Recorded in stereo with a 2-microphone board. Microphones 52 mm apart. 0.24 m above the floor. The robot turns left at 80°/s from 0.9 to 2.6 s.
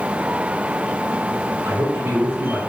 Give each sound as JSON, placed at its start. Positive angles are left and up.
{"t": 1.6, "sound": "a man speaking", "azimuth_deg": -90, "distance_m": 4.5}